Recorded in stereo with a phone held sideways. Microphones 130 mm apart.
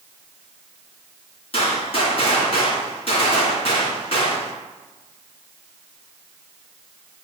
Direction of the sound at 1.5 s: 50° left (ahead or behind).